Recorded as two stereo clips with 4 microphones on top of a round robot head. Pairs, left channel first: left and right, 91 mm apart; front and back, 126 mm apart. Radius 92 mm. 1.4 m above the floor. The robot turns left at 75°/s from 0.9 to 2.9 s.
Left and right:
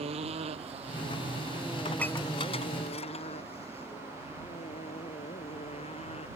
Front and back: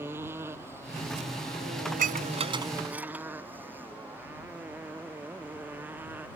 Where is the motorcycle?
100° right; by 6.4 s 105° left.